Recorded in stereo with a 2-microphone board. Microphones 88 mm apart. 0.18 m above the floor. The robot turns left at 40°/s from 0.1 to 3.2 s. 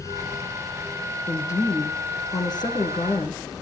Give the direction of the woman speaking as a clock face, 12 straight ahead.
7 o'clock.